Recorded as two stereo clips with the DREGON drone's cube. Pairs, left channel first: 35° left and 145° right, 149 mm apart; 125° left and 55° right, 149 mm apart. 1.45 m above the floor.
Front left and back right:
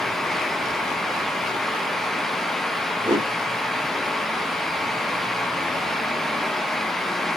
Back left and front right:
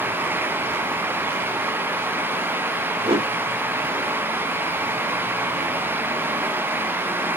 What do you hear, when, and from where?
3.0 s a whoosh: 90° right, 1.3 m